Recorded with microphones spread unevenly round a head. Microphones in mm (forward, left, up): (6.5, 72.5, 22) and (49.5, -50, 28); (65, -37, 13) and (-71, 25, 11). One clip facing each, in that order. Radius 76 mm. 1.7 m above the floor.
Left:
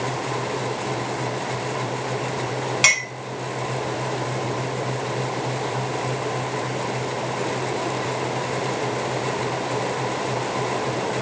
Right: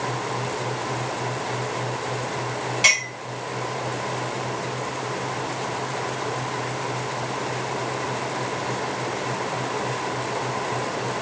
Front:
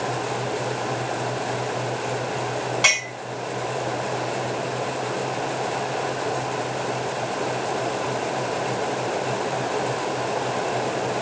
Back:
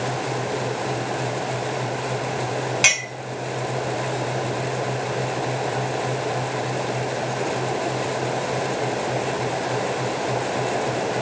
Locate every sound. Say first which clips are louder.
2.8 s a clink: left 1 dB, front 1 dB; 85° left, 3 m